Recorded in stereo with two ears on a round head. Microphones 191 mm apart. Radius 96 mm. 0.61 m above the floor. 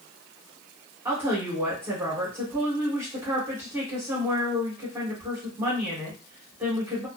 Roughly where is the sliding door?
No sliding door in this recording.